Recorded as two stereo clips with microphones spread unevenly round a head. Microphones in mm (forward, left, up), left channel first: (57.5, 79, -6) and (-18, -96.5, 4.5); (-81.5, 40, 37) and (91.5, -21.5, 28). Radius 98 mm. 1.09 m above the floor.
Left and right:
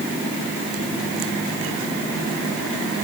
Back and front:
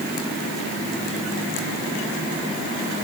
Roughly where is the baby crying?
No baby crying in this recording.